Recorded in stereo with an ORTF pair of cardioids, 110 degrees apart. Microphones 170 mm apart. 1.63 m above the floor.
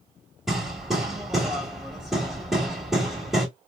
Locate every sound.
0.5 s hammering: straight ahead, 1.9 m